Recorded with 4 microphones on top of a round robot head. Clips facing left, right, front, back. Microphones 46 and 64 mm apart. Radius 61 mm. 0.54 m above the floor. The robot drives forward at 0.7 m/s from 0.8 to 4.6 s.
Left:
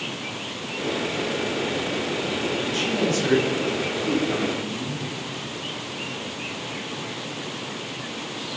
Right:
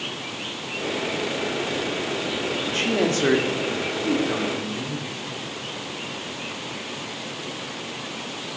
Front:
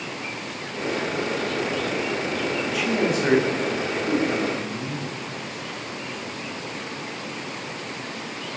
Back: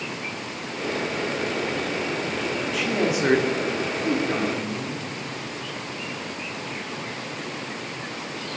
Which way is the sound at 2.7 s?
85° right.